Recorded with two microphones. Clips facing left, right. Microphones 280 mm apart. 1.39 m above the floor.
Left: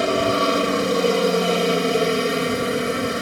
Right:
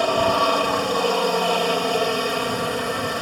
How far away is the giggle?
No giggle in this recording.